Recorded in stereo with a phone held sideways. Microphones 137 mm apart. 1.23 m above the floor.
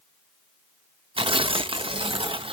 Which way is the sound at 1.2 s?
40° right (ahead or behind).